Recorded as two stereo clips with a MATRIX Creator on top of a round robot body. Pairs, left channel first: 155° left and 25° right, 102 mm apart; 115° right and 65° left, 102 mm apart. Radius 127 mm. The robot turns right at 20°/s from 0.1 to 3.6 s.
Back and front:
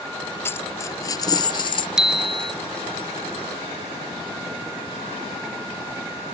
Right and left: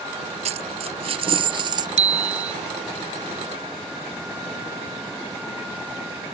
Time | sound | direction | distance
0.5 | a dropped coin | 90° left | ?
2.0 | a bicycle bell | 60° left | ?